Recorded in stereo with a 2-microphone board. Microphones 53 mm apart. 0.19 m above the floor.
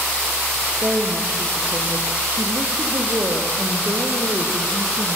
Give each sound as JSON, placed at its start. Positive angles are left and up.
{"t": 0.8, "sound": "a woman speaking", "side_deg": -35, "distance_m": 5.0}